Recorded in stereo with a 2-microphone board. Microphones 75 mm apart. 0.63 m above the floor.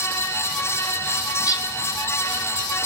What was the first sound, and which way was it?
A bird, 50° left (ahead or behind).